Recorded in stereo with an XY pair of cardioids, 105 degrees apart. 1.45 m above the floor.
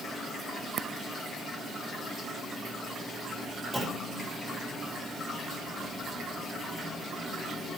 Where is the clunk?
15° right, 2 m.